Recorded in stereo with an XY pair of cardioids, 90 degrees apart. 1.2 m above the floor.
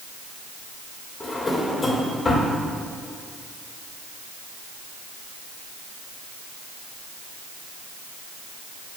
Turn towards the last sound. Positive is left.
turn(degrees=35)